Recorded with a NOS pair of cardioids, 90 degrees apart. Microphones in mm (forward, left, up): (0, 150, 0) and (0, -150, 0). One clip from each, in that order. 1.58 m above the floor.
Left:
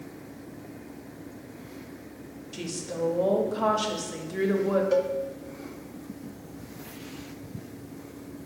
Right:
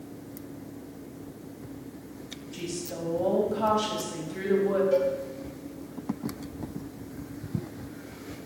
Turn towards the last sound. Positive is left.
turn(degrees=45)